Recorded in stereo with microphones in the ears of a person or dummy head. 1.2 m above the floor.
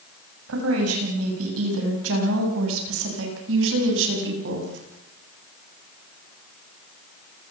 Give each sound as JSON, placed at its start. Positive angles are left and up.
{"t": 0.5, "sound": "a woman speaking", "side_deg": -85, "distance_m": 7.0}